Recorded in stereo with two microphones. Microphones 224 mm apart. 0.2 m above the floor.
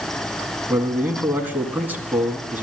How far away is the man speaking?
About 1.9 m.